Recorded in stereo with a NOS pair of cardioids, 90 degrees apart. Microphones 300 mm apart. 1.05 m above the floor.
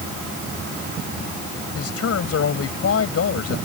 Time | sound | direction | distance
1.8 | a man speaking | 50° left | ?